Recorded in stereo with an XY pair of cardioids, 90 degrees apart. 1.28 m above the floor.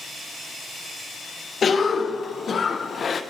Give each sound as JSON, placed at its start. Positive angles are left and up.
{"t": 1.6, "sound": "a cough", "azimuth_deg": 45, "distance_m": 0.6}